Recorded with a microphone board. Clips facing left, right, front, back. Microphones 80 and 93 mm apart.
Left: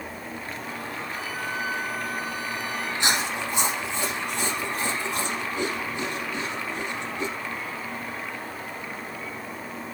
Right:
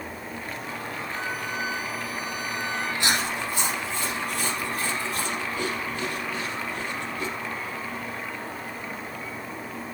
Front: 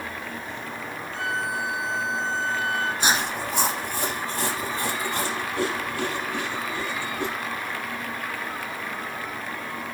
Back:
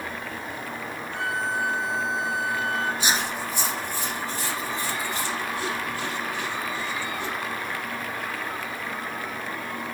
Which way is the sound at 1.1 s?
150° right.